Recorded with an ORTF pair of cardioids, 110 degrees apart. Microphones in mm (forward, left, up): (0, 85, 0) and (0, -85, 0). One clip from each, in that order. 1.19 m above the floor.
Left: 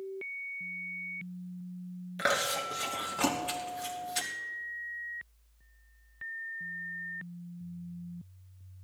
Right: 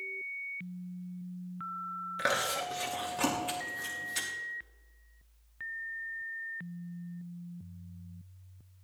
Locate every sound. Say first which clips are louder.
2.2 s chewing: left 2 dB; 5° left, 3 m